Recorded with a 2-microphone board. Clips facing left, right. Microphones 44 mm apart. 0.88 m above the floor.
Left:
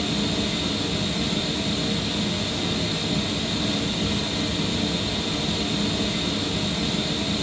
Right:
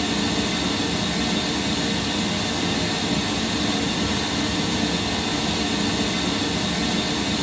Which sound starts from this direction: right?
Running water, at 0.0 s.